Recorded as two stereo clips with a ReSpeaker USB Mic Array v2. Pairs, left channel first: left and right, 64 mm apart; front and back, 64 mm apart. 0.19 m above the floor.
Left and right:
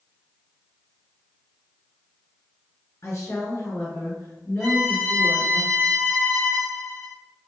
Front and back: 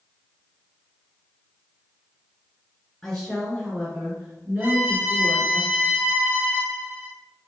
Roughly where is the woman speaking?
Left.